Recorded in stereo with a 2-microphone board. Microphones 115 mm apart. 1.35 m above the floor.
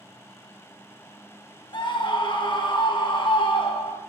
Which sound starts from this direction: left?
A scream, at 1.7 s.